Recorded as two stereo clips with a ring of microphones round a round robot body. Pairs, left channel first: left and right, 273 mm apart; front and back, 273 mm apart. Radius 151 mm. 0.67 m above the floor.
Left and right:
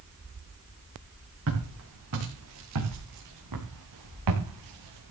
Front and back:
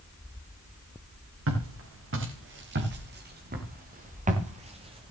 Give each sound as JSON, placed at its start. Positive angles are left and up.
{"t": 1.5, "sound": "footsteps", "azimuth_deg": -140, "distance_m": 8.0}